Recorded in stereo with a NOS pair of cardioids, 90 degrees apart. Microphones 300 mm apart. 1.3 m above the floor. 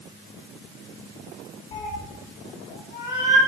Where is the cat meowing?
45° left, 1.9 m.